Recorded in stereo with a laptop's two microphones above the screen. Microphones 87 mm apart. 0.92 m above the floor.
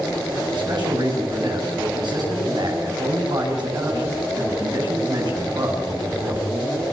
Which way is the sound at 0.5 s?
55° right (ahead or behind).